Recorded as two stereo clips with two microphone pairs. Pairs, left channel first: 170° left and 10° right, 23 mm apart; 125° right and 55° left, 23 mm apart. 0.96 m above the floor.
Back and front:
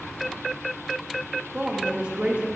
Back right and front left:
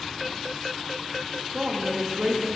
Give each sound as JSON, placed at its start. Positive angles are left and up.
{"t": 1.5, "sound": "a woman speaking", "azimuth_deg": 30, "distance_m": 1.6}